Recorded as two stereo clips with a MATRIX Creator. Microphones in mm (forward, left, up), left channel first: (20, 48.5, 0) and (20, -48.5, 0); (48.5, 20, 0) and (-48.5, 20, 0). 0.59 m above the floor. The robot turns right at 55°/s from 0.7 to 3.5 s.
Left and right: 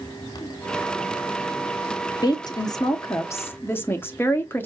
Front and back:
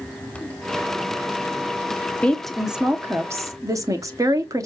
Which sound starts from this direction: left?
A woman speaking, at 2.2 s.